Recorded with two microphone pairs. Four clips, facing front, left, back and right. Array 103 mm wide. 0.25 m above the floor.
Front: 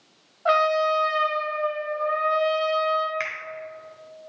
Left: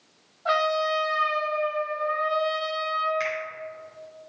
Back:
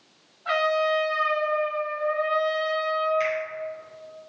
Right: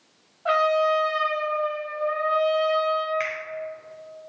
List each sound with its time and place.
0.5 s a trumpet: 20° right, 2 m
3.2 s a finger snap: 25° right, 2.5 m